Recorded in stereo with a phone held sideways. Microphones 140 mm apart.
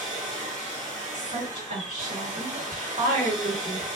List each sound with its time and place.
0.0 s a machine running: 60° right (ahead or behind), 1.4 m
1.1 s a woman speaking: 70° right (ahead or behind), 1.7 m